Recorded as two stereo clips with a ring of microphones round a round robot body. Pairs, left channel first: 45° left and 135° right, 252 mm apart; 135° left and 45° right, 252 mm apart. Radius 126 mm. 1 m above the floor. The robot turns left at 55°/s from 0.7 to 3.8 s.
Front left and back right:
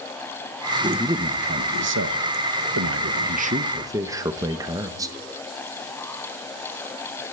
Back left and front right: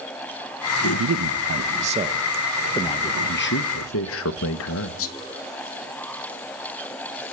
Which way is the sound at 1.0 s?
55° right.